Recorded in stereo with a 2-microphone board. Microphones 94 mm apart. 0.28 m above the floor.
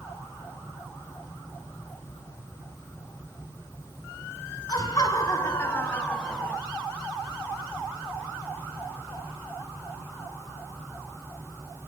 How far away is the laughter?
About 3 m.